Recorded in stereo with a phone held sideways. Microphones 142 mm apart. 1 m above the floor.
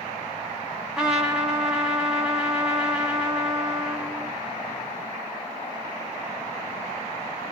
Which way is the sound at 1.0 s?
5° right (ahead or behind).